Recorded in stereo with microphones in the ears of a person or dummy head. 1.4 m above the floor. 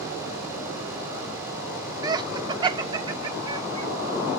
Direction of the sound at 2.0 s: 15° right (ahead or behind).